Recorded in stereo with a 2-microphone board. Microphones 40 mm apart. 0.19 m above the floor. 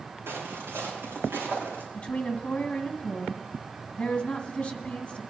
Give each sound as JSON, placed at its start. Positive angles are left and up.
{"t": 0.3, "sound": "footsteps", "side_deg": -80, "distance_m": 4.0}
{"t": 1.9, "sound": "a woman speaking", "side_deg": 30, "distance_m": 1.9}